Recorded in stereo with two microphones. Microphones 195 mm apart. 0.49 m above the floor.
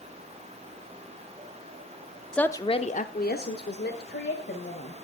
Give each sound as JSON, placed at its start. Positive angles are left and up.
{"t": 2.3, "sound": "a woman speaking", "side_deg": 5, "distance_m": 0.7}